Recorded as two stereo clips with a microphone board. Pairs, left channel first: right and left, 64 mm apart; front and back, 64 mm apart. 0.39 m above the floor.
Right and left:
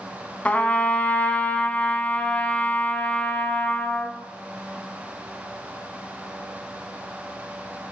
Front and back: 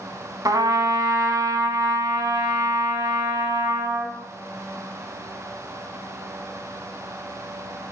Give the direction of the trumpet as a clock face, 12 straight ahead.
5 o'clock.